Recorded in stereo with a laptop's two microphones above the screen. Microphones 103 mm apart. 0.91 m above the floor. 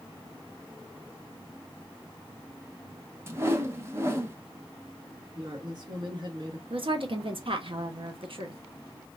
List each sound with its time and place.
3.3 s a whoosh: 25° right (ahead or behind), 0.7 m
5.3 s a woman speaking: 50° right (ahead or behind), 2 m
6.7 s a woman speaking: 60° right (ahead or behind), 0.8 m